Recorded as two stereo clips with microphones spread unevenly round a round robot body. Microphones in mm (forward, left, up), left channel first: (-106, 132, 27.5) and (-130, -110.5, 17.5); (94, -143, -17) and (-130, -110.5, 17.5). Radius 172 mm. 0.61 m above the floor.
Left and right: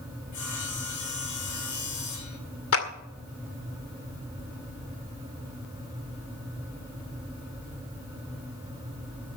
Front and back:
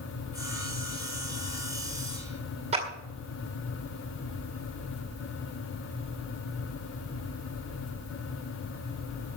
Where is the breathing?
I don't hear breathing.